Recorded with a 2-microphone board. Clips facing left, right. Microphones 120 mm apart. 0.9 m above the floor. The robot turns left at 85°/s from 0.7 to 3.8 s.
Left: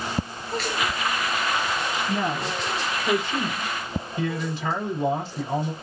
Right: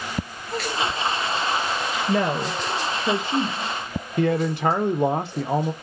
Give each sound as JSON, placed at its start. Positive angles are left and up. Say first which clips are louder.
{"t": 2.1, "sound": "a woman speaking", "louder": "right 7 dB", "side_deg": -55, "distance_m": 0.8}
{"t": 4.2, "sound": "a man speaking", "louder": "right 8 dB", "side_deg": -55, "distance_m": 0.6}